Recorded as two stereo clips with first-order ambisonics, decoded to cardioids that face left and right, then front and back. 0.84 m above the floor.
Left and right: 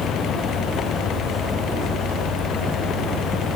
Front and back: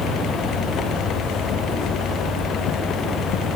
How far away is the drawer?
I don't hear a drawer.